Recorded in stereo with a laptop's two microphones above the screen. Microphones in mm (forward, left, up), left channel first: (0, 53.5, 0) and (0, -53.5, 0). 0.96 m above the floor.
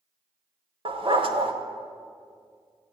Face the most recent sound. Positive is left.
turn(degrees=-55)  # may be behind; listen again after turning